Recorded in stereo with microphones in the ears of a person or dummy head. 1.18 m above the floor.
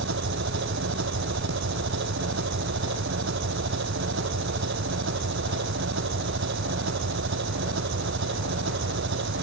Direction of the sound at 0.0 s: 65° right (ahead or behind).